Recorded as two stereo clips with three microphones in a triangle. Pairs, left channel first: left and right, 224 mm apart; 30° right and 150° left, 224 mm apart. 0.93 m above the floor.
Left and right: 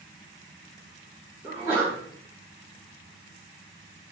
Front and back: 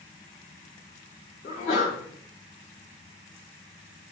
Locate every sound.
1.4 s a sneeze: 25° right, 1.4 m